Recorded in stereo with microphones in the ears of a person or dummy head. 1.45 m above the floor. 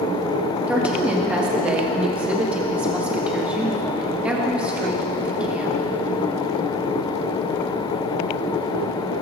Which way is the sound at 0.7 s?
5° right (ahead or behind).